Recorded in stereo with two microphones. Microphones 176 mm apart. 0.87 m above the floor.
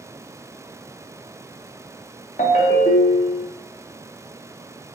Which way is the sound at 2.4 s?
50° left (ahead or behind).